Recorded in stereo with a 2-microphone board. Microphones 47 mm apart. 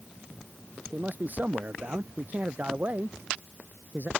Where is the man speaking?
45° right (ahead or behind).